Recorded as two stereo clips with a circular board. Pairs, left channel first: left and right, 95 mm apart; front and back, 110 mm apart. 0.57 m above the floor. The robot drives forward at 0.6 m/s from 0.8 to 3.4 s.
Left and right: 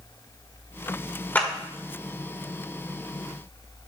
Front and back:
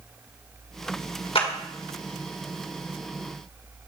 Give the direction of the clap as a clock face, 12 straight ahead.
11 o'clock.